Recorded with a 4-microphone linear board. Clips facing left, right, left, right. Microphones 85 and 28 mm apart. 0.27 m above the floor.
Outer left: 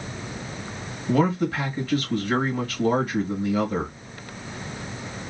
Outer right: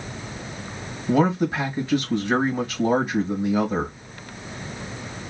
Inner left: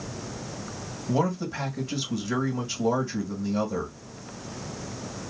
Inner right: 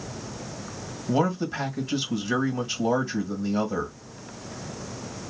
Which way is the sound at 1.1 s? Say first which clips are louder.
Outer right 2 dB, inner right 2 dB; 20° right (ahead or behind).